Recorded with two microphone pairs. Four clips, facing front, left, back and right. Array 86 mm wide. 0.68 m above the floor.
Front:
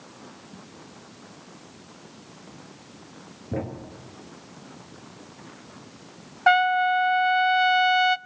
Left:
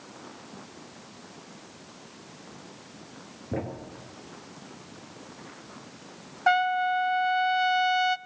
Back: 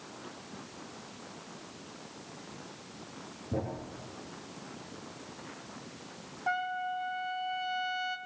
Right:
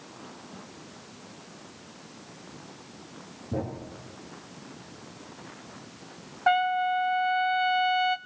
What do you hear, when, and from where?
3.5 s a thud: 50° left, 3.5 m
6.5 s a trumpet: 10° left, 0.6 m